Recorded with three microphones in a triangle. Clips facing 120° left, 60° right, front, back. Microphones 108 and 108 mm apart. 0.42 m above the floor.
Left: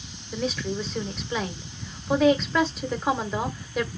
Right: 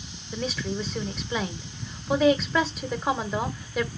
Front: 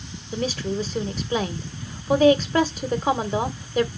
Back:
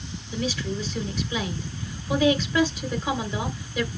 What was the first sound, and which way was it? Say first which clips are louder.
A woman speaking: left 2 dB, front 3 dB; 30° left.